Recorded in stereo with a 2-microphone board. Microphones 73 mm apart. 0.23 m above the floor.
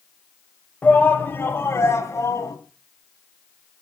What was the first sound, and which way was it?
A shout, 20° left (ahead or behind).